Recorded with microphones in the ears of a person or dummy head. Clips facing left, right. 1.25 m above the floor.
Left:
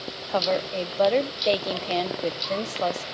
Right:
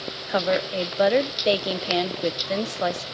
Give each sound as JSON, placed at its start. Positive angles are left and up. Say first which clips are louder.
{"t": 0.3, "sound": "a woman speaking", "louder": "right 2 dB", "side_deg": -10, "distance_m": 0.6}